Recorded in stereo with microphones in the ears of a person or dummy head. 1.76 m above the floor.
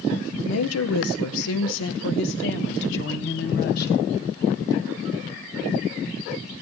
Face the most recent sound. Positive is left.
turn(degrees=50)  # may be behind; listen again after turning